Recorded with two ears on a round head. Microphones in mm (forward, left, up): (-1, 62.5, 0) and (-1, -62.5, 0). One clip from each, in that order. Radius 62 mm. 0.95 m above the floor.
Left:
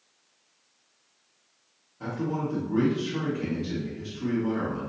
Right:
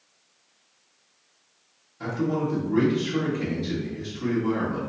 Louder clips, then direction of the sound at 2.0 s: Right 4 dB; 50° right (ahead or behind).